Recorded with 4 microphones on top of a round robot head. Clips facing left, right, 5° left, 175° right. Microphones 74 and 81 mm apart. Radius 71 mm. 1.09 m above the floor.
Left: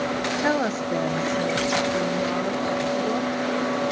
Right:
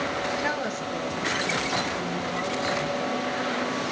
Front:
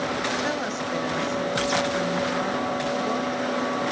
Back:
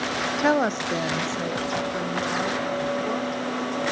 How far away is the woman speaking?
About 0.8 m.